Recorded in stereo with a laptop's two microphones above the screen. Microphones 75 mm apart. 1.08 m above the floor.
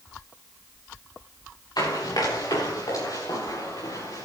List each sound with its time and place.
1.8 s running footsteps: 70° left (ahead or behind), 7.5 m; by 4.3 s 55° left (ahead or behind), 8.5 m